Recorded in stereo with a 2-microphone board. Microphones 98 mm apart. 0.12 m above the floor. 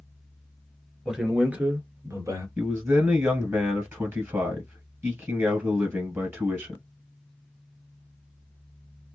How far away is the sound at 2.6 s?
About 1.7 m.